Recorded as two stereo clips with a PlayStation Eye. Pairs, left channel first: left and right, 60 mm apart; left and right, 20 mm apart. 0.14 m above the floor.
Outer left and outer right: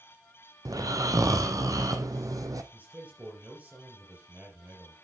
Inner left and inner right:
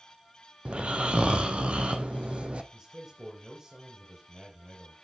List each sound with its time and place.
0.7 s snoring: 75° right (ahead or behind), 1.1 m
2.7 s a man speaking: 25° right (ahead or behind), 4 m